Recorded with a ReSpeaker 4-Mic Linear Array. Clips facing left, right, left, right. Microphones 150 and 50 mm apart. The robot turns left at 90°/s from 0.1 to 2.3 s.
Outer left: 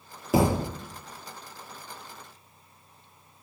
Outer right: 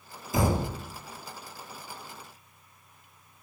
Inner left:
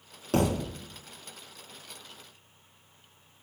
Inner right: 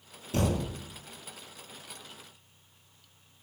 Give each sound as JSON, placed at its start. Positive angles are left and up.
{"t": 0.3, "sound": "a thud", "azimuth_deg": 75, "distance_m": 3.0}